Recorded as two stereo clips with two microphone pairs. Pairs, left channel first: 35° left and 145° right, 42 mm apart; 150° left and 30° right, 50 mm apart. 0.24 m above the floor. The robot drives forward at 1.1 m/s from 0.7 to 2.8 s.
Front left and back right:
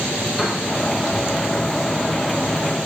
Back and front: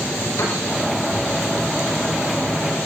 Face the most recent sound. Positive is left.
turn(degrees=140)